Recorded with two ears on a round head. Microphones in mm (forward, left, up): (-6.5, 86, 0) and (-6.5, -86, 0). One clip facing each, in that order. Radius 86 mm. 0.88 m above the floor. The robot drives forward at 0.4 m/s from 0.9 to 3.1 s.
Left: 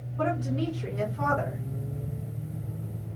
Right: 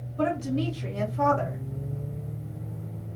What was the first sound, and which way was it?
A woman speaking, 30° right (ahead or behind).